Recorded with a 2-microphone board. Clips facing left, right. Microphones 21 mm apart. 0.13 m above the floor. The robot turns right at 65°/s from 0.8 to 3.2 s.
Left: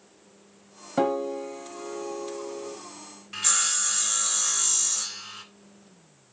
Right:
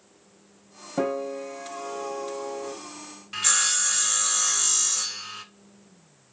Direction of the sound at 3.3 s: 10° right (ahead or behind).